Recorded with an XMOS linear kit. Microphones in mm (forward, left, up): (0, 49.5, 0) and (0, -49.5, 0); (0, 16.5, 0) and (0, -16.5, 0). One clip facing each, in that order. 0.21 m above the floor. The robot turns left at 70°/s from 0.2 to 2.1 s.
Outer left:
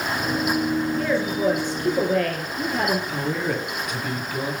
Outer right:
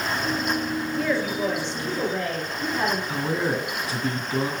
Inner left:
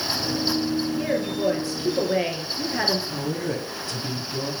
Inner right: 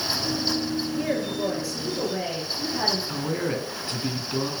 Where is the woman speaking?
Straight behind, 3 m; by 3.0 s 105° left, 3 m.